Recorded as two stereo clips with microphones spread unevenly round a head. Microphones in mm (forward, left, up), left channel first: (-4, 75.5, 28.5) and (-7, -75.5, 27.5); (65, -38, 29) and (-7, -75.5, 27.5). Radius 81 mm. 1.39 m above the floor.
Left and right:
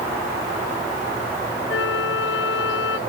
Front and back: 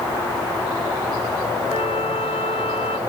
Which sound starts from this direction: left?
A flute, at 1.7 s.